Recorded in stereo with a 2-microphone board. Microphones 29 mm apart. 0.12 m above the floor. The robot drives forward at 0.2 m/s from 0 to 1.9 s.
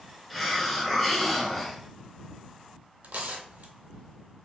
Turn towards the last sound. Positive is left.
turn(degrees=-75)  # may be behind; listen again after turning